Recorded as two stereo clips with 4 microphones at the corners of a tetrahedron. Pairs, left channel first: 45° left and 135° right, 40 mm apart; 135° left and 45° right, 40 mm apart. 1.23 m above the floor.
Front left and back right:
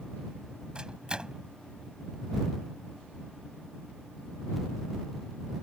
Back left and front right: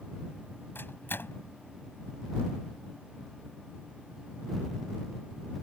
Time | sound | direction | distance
0.8 | a microwave | 160° left | ?